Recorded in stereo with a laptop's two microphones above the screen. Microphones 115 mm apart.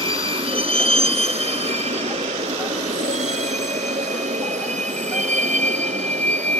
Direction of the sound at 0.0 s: 45° right (ahead or behind).